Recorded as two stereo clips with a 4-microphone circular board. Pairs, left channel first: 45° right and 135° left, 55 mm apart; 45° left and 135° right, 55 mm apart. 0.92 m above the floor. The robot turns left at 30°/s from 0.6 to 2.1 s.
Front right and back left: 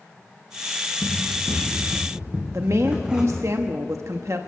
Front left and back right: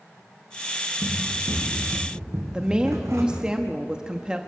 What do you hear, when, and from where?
1.0 s running footsteps: 135° right, 5 m; by 3.5 s 145° right, 3.5 m
2.5 s a woman speaking: 155° left, 1.0 m